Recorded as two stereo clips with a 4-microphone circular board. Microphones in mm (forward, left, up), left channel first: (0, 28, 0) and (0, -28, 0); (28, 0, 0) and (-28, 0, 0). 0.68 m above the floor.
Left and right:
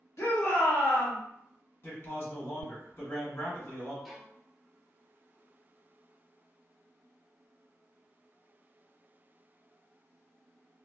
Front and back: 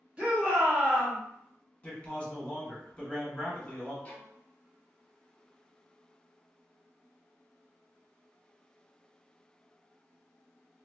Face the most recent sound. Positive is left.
turn(degrees=5)